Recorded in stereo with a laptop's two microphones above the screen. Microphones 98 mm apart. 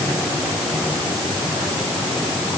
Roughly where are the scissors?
I don't hear scissors.